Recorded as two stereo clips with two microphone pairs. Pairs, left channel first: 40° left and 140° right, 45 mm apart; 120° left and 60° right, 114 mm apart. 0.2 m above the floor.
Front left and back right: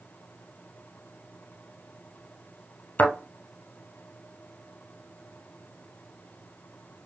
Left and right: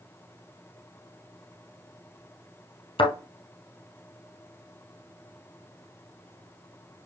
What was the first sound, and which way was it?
A thud, 90° left.